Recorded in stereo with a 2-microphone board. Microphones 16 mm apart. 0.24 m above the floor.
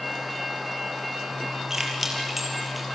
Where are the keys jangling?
25° right (ahead or behind), 5 m; by 2.9 s 10° right (ahead or behind), 5 m.